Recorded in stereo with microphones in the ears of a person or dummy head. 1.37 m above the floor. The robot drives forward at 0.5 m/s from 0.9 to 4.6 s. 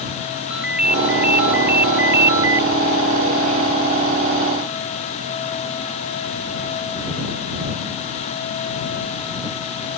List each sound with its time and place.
0.5 s a ringtone: 5° right (ahead or behind); by 2.7 s 15° right (ahead or behind)